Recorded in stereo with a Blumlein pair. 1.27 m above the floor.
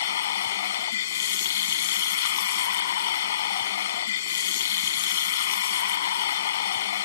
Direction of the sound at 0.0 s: 60° left.